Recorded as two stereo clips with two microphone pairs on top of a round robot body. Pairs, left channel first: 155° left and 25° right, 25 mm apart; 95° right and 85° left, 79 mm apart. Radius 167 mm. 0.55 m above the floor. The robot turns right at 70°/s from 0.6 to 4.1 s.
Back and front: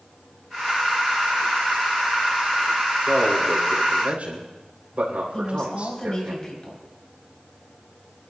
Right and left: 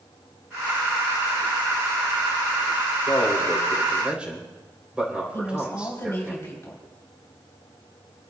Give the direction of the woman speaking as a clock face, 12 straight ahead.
5 o'clock.